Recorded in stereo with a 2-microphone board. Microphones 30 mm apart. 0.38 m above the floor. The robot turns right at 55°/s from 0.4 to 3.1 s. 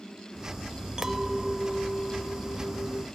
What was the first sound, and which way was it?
A clink, 30° right.